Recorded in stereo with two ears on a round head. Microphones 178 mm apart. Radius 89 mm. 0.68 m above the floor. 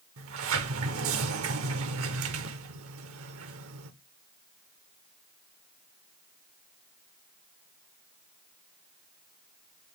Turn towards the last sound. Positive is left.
turn(degrees=-75)  # may be behind; listen again after turning